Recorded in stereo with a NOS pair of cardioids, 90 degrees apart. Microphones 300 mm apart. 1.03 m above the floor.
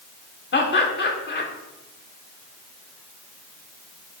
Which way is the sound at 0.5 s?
40° left.